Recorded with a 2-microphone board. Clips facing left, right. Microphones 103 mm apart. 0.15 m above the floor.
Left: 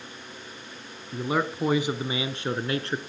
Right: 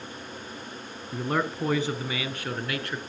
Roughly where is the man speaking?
Centre.